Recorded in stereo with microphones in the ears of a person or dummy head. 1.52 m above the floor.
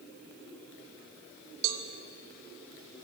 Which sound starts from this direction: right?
A cowbell, at 1.6 s.